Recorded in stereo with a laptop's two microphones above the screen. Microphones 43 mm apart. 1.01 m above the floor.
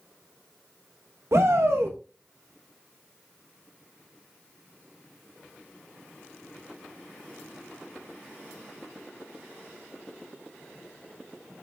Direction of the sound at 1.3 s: 65° right (ahead or behind).